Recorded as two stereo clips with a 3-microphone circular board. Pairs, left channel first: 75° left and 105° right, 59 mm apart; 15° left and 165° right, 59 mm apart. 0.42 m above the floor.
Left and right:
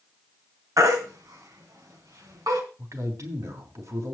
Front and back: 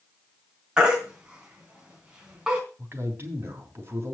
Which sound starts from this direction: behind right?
A man speaking, at 2.8 s.